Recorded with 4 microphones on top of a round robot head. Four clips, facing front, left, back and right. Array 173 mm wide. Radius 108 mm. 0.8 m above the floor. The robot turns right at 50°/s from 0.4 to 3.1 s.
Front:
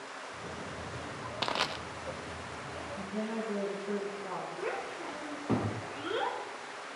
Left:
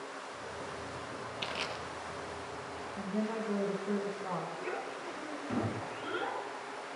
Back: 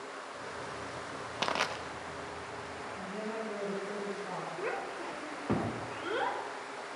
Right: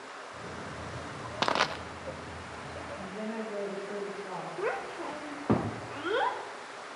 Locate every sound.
1.4 s crushing: 90° right, 0.8 m; by 1.8 s 75° right, 0.8 m
3.0 s a woman speaking: 75° left, 7 m; by 4.5 s 85° left, 7 m
4.6 s a child speaking: 90° right, 2 m